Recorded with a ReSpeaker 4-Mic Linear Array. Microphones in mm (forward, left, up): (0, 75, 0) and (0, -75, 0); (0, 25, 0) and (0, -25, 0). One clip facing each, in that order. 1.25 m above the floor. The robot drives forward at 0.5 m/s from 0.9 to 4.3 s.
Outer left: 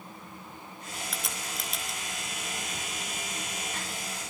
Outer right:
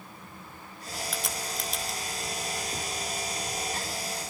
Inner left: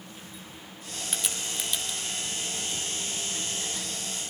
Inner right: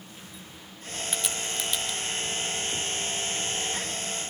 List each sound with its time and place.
1.1 s a crack: centre (ahead or behind), 3.5 m